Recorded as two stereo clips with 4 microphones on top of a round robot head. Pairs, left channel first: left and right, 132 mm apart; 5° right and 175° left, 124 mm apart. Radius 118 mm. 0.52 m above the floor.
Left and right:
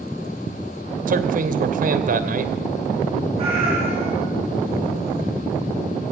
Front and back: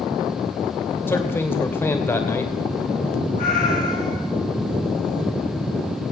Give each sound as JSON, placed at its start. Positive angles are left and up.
{"t": 1.1, "sound": "a man speaking", "azimuth_deg": -80, "distance_m": 2.5}
{"t": 3.4, "sound": "a cat meowing", "azimuth_deg": -35, "distance_m": 8.0}